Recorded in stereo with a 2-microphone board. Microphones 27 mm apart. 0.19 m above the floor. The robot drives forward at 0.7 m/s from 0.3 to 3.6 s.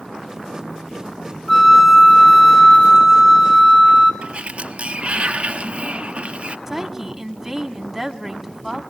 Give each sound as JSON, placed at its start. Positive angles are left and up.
{"t": 1.5, "sound": "a flute", "side_deg": 0, "distance_m": 1.1}
{"t": 4.2, "sound": "a sliding door", "side_deg": -50, "distance_m": 1.0}
{"t": 6.7, "sound": "a woman speaking", "side_deg": -10, "distance_m": 1.6}